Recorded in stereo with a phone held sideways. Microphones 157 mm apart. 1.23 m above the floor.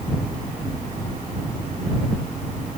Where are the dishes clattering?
No dishes clattering in this recording.